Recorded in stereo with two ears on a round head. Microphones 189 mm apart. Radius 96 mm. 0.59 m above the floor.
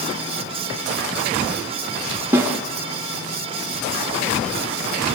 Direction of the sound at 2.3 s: 10° right (ahead or behind).